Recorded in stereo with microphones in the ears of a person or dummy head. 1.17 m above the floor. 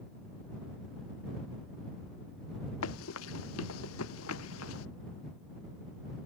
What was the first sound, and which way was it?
Running footsteps, 85° left.